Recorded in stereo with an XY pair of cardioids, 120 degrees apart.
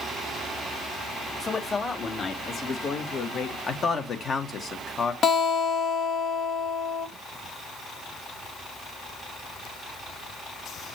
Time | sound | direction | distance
1.4 | a man speaking | 25° left | 2 m
3.7 | a man speaking | 40° left | 1.7 m
5.2 | a guitar | 50° left | 1.5 m